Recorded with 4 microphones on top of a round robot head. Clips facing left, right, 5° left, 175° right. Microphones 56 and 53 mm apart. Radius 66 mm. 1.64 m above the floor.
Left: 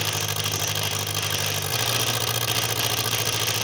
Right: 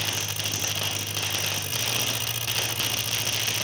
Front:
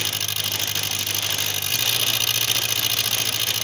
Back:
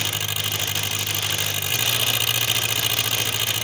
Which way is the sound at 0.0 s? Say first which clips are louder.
Left 3 dB, back 1 dB; 105° left.